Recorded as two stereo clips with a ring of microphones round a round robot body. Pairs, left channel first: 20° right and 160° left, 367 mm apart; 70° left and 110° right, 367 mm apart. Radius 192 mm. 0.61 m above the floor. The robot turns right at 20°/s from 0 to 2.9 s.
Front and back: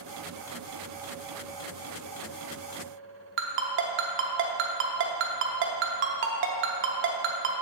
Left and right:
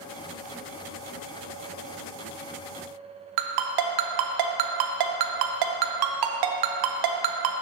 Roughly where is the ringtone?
Behind right.